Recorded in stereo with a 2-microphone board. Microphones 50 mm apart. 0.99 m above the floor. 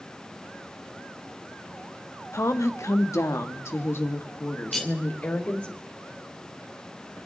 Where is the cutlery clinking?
Centre (ahead or behind), 3 m.